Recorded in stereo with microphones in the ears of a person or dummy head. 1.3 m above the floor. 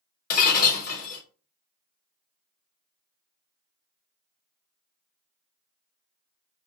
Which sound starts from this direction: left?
Breaking glass, at 0.3 s.